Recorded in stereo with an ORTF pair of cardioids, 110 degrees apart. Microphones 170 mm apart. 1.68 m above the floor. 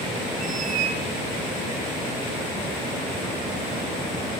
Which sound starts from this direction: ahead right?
A squeak, at 0.4 s.